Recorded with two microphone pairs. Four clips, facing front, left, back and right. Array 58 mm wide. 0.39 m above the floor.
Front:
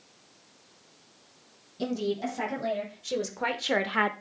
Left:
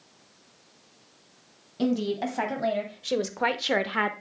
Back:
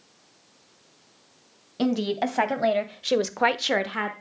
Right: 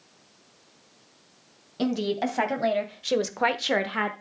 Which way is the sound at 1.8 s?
170° right.